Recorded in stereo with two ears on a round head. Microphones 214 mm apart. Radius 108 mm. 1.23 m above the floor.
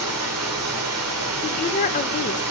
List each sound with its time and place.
0.0 s running water: 70° right (ahead or behind), 2 m
1.4 s a woman speaking: 35° left (ahead or behind), 0.7 m